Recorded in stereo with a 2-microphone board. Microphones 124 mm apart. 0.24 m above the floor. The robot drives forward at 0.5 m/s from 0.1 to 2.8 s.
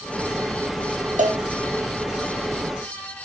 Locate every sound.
1.2 s a cowbell: 85° right, 1.6 m; by 1.4 s 80° right, 1.6 m